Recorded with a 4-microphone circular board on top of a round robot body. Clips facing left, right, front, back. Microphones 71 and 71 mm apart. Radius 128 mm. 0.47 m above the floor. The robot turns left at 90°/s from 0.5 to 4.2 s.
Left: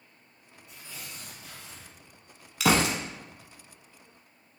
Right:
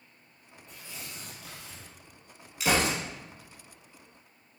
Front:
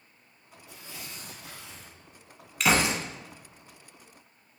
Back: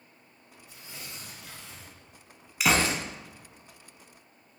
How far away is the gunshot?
About 0.9 m.